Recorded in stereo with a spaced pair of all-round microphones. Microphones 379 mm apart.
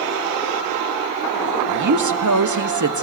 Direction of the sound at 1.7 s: 50° right (ahead or behind).